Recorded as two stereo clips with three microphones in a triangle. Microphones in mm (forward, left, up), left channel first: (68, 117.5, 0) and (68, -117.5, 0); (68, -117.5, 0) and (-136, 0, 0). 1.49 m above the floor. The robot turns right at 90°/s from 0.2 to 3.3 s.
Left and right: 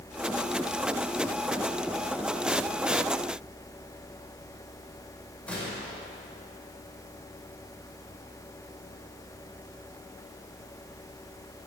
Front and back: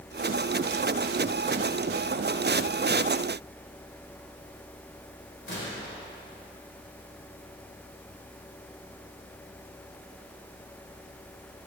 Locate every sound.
5.5 s a gunshot: 5° left, 5 m